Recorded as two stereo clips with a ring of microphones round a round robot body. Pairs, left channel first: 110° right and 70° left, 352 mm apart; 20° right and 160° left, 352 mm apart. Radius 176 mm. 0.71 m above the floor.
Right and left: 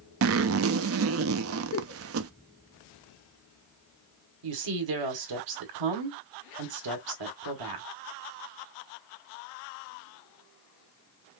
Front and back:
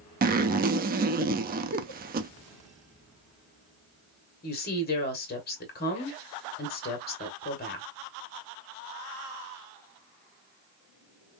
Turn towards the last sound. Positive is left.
turn(degrees=40)